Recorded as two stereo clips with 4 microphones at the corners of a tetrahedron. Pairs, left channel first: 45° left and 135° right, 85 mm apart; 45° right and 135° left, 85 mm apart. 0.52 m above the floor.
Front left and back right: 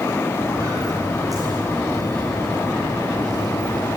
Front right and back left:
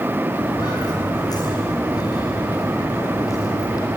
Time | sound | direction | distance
0.3 | footsteps | 85° right | 7 m